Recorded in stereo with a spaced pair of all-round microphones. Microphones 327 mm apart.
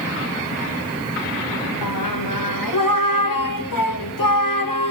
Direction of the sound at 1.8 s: 75° left (ahead or behind).